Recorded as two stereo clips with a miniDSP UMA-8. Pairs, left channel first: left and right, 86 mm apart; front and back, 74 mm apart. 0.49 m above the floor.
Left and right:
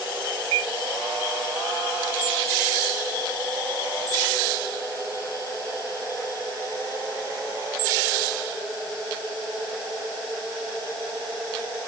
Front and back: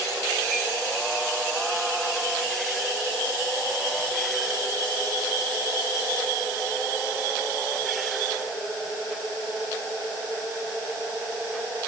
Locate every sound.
Only background noise.